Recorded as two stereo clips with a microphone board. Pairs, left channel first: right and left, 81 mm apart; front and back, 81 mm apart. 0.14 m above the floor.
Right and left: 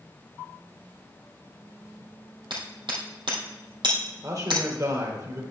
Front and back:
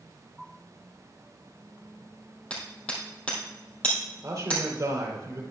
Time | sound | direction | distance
2.5 | hammering | 75° left | 3 m
4.2 | a man speaking | 130° left | 3 m